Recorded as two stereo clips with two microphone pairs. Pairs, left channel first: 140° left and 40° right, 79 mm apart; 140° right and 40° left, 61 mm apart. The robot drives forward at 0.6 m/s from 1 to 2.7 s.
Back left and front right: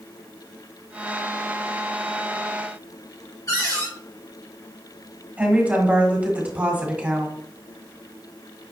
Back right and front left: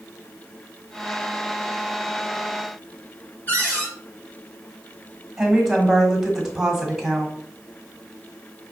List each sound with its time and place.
3.5 s a cupboard door: 170° left, 2.0 m
5.4 s a woman speaking: 35° right, 1.3 m